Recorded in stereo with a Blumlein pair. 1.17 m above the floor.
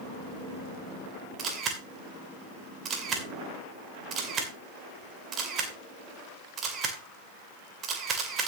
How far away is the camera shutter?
About 2.5 m.